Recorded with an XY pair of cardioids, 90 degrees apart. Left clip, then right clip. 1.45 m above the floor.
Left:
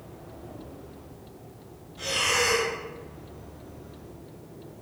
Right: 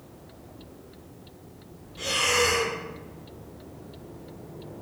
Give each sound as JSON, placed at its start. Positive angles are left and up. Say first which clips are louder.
{"t": 2.0, "sound": "breathing", "louder": "right 1 dB", "azimuth_deg": -65, "distance_m": 1.2}